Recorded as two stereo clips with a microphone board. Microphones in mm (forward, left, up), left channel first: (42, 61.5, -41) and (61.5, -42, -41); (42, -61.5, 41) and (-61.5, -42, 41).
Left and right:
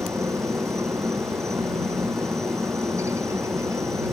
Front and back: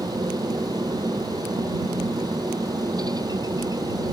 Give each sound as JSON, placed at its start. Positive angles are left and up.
{"t": 0.0, "sound": "a helicopter", "azimuth_deg": -140}